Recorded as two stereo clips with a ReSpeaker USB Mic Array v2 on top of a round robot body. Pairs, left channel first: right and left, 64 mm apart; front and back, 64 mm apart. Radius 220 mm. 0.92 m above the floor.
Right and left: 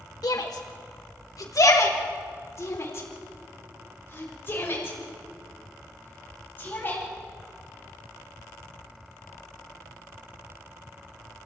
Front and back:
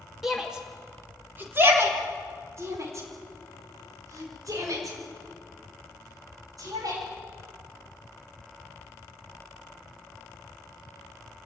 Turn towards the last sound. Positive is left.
turn(degrees=-155)